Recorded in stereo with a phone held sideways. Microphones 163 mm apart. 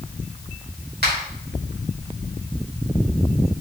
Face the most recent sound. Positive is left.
turn(degrees=-85)